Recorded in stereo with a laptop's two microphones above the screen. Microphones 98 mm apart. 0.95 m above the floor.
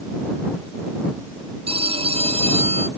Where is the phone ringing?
85° right.